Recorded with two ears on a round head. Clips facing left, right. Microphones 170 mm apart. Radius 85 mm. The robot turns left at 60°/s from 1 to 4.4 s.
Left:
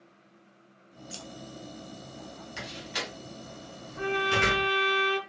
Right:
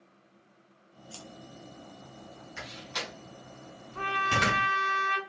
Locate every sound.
1.1 s scissors: 20° left (ahead or behind), 0.6 m; by 1.2 s 15° left (ahead or behind), 0.6 m
2.6 s a door slam: 45° left (ahead or behind), 3 m; by 4.7 s 65° right (ahead or behind), 3 m
4.0 s a trumpet: 75° right (ahead or behind), 2.5 m; by 5.2 s 55° right (ahead or behind), 2.5 m